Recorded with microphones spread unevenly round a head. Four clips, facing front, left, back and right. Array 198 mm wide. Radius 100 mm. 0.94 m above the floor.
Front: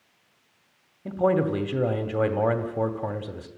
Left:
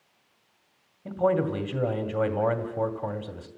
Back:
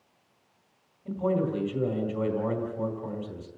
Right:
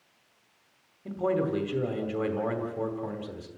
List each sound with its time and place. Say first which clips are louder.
1.1 s a man speaking: left 3 dB, front 5 dB; 20° left, 2 m